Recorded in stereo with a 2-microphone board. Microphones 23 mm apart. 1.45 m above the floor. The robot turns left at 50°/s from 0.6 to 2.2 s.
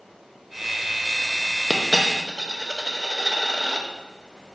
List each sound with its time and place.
1.7 s a dropped coin: 10° left (ahead or behind), 0.7 m; by 3.8 s 5° left (ahead or behind), 0.7 m